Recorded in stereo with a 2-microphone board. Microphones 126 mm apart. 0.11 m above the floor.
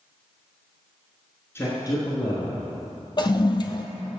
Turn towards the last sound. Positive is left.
turn(degrees=40)  # may be behind; listen again after turning